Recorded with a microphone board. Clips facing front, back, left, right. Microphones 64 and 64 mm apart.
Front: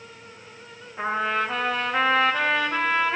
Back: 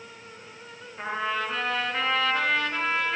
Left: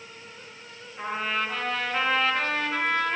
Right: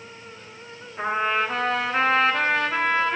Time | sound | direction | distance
1.0 | a trumpet | 20° right | 6.5 m